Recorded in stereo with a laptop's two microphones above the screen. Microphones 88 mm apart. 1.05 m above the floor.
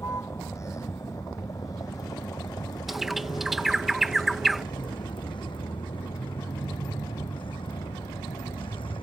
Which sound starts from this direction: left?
A vehicle, at 0.0 s.